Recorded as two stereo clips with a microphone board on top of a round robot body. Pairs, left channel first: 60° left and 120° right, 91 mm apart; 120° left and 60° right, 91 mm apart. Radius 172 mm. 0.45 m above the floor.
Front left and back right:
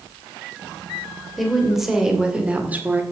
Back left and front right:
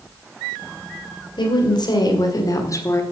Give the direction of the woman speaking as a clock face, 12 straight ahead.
7 o'clock.